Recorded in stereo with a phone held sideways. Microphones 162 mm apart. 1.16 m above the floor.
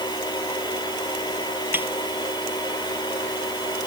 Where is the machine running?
25° left (ahead or behind).